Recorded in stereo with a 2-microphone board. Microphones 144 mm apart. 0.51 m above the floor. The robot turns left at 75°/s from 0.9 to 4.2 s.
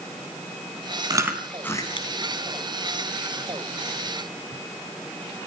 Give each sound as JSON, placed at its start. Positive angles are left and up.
{"t": 1.1, "sound": "chewing", "side_deg": -30, "distance_m": 3.5}